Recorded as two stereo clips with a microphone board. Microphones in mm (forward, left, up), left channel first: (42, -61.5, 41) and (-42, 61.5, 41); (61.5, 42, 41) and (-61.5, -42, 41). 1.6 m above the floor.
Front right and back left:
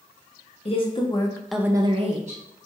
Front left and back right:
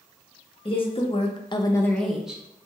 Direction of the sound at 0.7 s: 15° right.